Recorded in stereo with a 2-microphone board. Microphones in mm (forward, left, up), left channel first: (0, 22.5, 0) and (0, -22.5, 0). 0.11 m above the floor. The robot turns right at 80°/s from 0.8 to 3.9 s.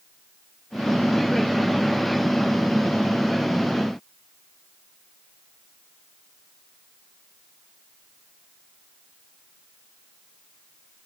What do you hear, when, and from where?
Only background noise.